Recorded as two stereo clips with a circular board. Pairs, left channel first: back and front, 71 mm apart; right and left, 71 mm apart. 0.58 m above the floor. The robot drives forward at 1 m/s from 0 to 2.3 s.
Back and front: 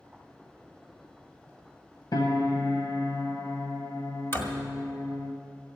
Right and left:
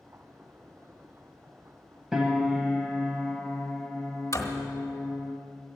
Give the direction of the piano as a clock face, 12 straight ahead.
6 o'clock.